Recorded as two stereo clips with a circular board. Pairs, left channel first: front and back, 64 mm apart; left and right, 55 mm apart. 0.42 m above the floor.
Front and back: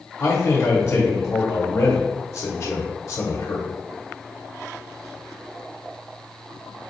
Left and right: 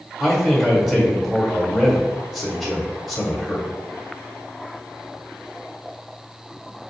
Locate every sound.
0.2 s a man speaking: 15° right, 1.2 m